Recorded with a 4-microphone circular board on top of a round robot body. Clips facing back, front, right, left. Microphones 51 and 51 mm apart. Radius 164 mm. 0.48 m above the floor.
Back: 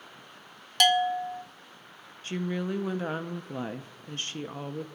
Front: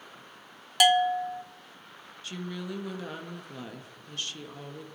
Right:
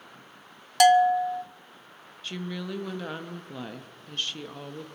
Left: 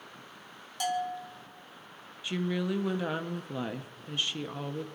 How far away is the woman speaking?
About 0.9 m.